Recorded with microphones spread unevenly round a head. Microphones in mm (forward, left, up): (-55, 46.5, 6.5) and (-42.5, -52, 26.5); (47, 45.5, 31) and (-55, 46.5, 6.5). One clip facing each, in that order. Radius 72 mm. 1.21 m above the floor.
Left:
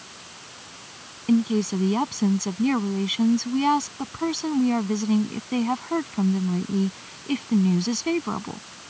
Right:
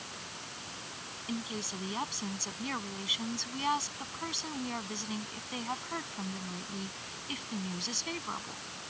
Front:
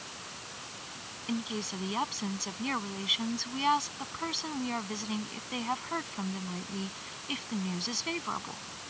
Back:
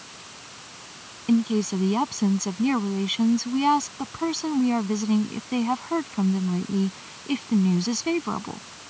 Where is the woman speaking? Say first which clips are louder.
Left 18 dB, back 13 dB; 130° left.